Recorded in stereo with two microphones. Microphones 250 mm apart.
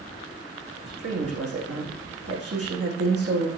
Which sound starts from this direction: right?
A woman speaking, at 0.9 s.